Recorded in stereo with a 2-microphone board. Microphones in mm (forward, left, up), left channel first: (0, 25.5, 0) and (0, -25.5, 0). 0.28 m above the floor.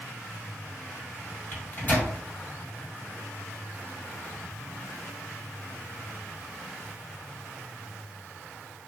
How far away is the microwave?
About 1.5 m.